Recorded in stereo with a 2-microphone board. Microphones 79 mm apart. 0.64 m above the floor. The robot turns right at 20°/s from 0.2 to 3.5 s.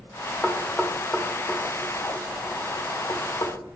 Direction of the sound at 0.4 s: Centre (ahead or behind).